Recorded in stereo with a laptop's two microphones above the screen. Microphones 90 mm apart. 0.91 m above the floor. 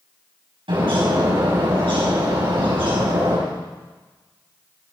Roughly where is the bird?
Right.